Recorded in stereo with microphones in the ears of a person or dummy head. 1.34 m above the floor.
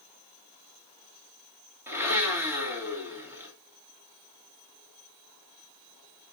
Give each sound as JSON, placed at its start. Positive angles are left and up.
{"t": 1.9, "sound": "a blender", "side_deg": -5, "distance_m": 2.5}